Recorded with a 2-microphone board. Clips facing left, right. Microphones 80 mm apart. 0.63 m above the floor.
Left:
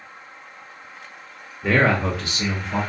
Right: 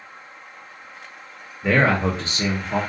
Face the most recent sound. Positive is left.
turn(degrees=-50)  # may be behind; listen again after turning